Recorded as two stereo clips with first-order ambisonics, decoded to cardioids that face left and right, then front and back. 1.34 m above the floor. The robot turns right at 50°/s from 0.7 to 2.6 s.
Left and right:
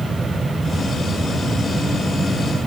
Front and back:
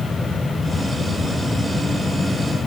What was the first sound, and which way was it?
Only background noise.